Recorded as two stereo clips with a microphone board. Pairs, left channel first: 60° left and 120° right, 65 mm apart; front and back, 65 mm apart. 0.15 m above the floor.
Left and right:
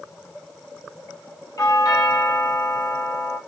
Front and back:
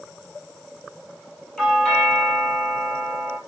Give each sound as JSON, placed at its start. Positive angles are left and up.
{"t": 1.6, "sound": "a doorbell", "azimuth_deg": 80, "distance_m": 4.5}